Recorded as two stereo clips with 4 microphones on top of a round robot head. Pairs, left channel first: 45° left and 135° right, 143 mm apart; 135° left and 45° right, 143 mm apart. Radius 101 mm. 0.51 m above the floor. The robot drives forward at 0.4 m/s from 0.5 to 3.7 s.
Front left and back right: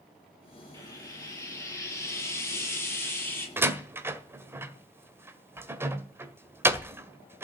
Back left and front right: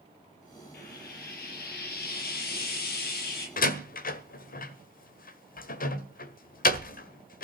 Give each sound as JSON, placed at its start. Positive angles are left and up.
{"t": 0.7, "sound": "frying", "azimuth_deg": 115, "distance_m": 7.0}
{"t": 3.6, "sound": "a door slam", "azimuth_deg": 150, "distance_m": 1.5}